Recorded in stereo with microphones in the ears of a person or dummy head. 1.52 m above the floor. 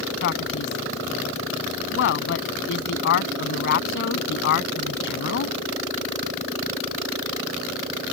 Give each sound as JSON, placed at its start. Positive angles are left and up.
{"t": 0.2, "sound": "a man speaking", "side_deg": 60}